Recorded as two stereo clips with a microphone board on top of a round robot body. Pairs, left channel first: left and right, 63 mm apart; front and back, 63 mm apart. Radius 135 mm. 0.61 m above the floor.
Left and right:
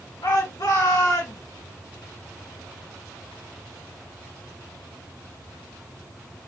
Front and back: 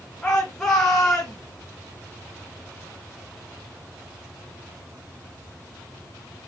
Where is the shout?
75° left, 4 m; by 1.4 s 80° left, 5 m.